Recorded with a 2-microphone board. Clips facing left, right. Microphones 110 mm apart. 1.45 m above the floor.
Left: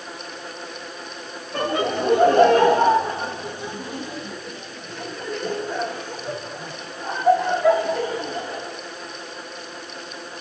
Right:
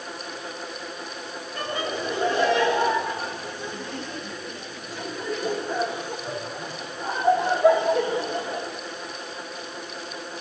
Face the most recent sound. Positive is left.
turn(degrees=-30)  # may be behind; listen again after turning